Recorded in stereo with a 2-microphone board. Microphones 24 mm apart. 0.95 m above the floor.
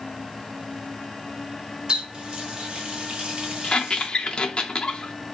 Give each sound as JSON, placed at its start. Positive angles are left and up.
{"t": 1.9, "sound": "a running tap", "side_deg": -35, "distance_m": 0.8}
{"t": 3.6, "sound": "a squeak", "side_deg": 35, "distance_m": 0.5}